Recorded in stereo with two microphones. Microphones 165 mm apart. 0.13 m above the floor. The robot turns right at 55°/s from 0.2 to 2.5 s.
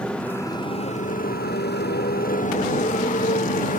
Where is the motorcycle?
5° left (ahead or behind); by 3.8 s 55° left (ahead or behind).